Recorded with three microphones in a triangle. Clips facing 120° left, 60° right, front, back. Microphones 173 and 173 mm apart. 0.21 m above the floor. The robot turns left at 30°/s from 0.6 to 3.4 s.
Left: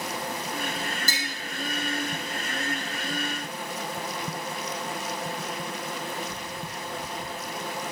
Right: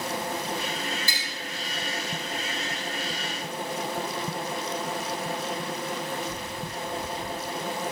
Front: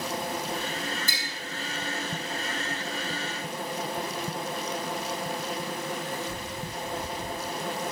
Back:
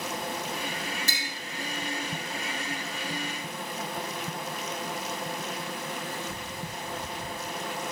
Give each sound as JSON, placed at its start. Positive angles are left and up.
{"t": 1.1, "sound": "tapping", "azimuth_deg": 165, "distance_m": 7.5}